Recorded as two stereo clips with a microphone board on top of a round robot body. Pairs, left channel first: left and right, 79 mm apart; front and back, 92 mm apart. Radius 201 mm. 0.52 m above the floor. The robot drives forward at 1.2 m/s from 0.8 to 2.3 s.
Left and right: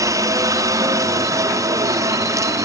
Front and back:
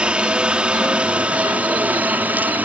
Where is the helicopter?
105° right; by 2.6 s 115° right.